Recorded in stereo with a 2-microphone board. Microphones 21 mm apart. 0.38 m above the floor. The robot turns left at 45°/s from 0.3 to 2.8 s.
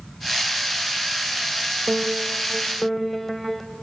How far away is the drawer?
No drawer in this recording.